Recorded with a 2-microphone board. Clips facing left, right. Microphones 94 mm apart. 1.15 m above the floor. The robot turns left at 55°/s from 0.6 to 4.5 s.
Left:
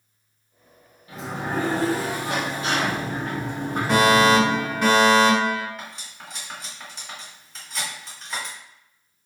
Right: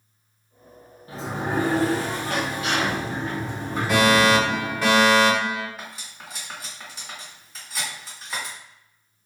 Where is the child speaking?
No child speaking in this recording.